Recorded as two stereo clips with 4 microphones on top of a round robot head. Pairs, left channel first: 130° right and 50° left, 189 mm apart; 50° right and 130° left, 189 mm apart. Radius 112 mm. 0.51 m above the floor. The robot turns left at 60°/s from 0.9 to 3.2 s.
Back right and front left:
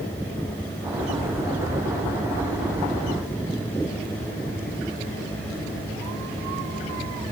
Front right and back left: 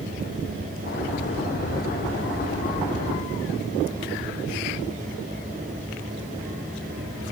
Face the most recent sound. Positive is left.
No sound to turn to.